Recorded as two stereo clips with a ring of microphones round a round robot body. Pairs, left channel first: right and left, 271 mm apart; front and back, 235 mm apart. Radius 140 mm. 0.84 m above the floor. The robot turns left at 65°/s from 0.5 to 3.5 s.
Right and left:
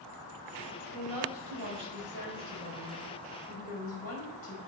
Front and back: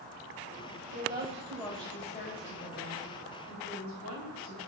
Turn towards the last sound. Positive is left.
turn(degrees=-25)